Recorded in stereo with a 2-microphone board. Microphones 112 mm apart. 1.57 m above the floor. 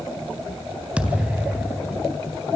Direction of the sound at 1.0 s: 10° right (ahead or behind).